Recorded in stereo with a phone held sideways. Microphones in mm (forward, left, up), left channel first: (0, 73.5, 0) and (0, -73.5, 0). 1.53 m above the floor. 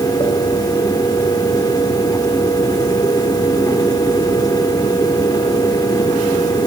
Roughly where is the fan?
Left.